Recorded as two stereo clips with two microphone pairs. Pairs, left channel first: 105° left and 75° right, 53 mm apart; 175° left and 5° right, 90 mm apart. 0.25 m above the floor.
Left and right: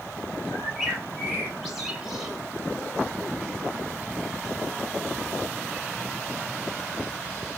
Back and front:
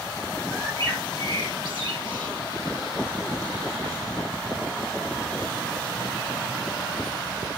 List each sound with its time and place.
0.5 s a bird: 10° left, 3 m